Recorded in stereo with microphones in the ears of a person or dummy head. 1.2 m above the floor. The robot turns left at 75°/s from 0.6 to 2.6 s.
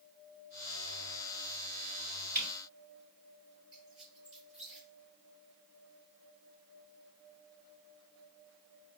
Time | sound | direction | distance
2.4 | a camera shutter | 10° left (ahead or behind) | 3.5 m
3.7 | a squeak | 10° right (ahead or behind) | 3.5 m